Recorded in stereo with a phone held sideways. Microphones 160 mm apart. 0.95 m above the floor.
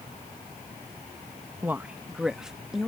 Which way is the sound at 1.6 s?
10° right (ahead or behind).